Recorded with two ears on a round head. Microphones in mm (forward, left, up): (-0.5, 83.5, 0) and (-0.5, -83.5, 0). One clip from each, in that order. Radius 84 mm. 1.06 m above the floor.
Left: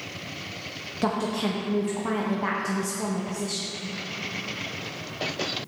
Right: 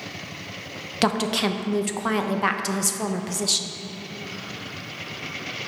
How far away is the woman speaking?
About 0.6 m.